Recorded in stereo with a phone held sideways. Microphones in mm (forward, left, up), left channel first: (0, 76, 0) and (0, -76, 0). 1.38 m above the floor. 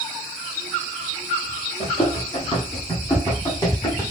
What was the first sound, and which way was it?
Running footsteps, 45° left (ahead or behind).